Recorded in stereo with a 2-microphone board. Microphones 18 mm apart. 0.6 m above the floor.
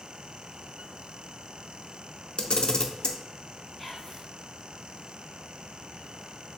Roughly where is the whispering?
Centre.